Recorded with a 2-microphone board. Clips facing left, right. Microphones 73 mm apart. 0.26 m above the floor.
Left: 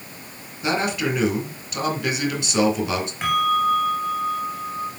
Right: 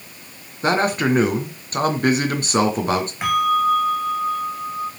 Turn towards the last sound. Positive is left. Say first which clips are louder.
# right 1 dB
turn(degrees=-15)  # may be behind; listen again after turning